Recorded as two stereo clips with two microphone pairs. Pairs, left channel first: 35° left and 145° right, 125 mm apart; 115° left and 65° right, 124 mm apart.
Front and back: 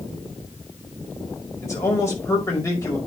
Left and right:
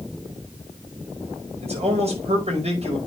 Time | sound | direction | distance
1.6 | a man speaking | 35° right | 5.5 m